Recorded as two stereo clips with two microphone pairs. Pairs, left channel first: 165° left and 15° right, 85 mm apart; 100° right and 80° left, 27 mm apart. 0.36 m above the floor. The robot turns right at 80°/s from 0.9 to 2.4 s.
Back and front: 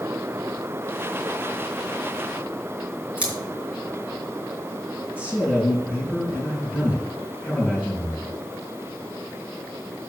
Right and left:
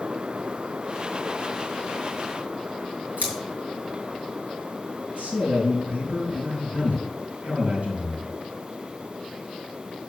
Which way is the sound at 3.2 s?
60° left.